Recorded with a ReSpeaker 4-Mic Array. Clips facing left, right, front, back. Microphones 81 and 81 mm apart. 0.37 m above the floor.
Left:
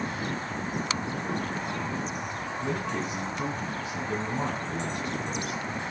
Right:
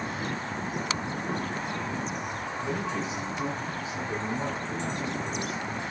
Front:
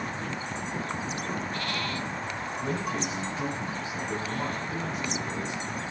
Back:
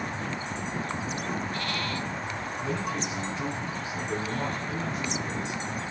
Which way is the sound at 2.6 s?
55° left.